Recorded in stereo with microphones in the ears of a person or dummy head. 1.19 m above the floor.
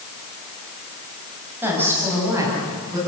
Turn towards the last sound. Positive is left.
turn(degrees=-20)  # may be behind; listen again after turning